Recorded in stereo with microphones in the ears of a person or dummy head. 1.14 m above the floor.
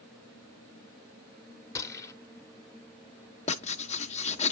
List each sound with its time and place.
1.8 s a gunshot: 15° left (ahead or behind), 0.8 m
3.5 s writing: 25° left (ahead or behind), 0.8 m